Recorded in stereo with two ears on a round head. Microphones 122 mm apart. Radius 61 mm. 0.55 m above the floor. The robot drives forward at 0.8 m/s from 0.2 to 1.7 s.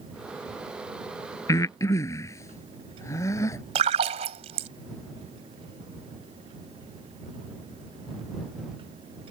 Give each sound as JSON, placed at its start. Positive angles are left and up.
{"t": 1.5, "sound": "breathing", "side_deg": 25}
{"t": 3.8, "sound": "a splash", "side_deg": -50}